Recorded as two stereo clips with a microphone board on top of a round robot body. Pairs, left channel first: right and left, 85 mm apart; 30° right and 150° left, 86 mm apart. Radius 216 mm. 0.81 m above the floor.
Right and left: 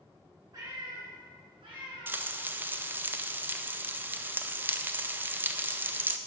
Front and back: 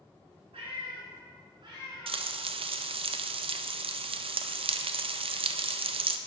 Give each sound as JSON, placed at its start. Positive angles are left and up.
{"t": 0.5, "sound": "a cat meowing", "azimuth_deg": 135, "distance_m": 2.5}
{"t": 2.1, "sound": "frying", "azimuth_deg": 160, "distance_m": 0.5}